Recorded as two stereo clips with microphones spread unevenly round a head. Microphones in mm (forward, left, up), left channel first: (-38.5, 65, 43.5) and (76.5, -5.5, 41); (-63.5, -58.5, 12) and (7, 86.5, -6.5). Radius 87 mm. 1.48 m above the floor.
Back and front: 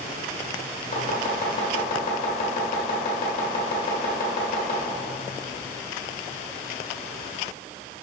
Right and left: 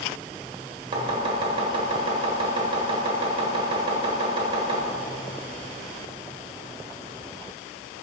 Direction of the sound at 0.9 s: 125° left.